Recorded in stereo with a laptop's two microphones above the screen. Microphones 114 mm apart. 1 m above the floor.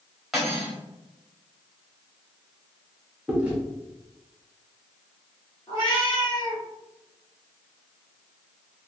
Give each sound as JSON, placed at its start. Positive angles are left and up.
{"t": 0.3, "sound": "cutlery clinking", "side_deg": 0, "distance_m": 1.0}
{"t": 3.3, "sound": "chewing", "side_deg": -10, "distance_m": 0.7}
{"t": 5.7, "sound": "a cat meowing", "side_deg": 45, "distance_m": 1.0}